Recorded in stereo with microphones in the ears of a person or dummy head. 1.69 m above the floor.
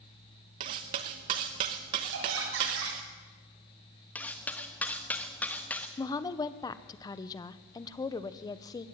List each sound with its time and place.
0.6 s cutlery clinking: 25° right (ahead or behind), 0.9 m
2.1 s laughter: 80° right, 8 m
4.2 s cutlery clinking: 5° left (ahead or behind), 1.3 m
6.0 s a woman speaking: 20° left (ahead or behind), 1.1 m